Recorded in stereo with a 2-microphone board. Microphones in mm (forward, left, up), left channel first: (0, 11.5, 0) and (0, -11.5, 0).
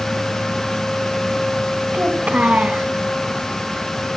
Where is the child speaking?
75° right (ahead or behind), 3.5 m.